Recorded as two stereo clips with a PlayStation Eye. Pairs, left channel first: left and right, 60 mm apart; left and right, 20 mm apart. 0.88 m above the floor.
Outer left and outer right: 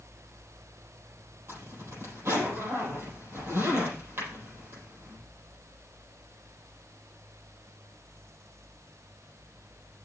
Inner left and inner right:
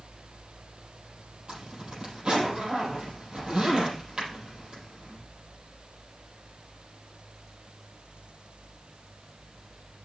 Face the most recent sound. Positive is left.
turn(degrees=-45)  # may be behind; listen again after turning